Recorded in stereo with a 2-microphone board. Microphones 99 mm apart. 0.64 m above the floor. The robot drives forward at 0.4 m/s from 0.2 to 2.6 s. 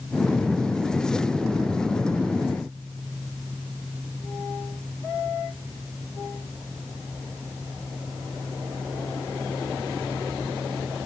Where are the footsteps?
No footsteps in this recording.